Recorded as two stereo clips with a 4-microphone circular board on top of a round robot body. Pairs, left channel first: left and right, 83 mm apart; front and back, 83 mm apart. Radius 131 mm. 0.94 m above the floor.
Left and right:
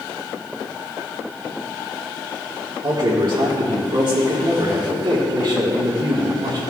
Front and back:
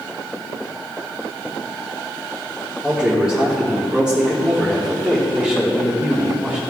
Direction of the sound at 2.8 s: 100° right.